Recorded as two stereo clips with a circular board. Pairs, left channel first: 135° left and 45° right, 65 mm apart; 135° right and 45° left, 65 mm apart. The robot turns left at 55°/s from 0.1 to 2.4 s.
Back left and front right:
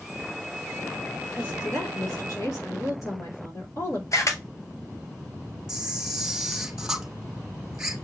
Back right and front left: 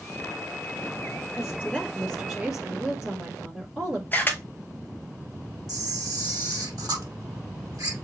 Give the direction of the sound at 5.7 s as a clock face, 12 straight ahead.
11 o'clock.